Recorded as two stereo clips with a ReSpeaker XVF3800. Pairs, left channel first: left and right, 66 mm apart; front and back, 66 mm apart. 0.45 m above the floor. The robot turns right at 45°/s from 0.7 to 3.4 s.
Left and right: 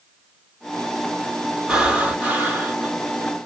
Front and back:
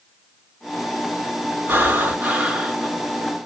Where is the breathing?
160° right, 1.0 m; by 2.9 s 105° right, 1.0 m.